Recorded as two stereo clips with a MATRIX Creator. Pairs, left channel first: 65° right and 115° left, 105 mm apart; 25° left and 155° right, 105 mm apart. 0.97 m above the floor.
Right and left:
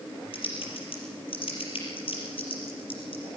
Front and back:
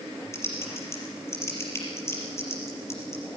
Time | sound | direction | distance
0.3 | typing on a keyboard | 40° right | 5.5 m